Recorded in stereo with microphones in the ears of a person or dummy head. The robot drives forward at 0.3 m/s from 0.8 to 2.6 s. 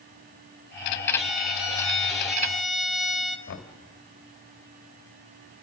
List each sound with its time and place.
1.2 s a violin: 5° right (ahead or behind), 1.9 m
3.5 s knocking: 55° left (ahead or behind), 1.6 m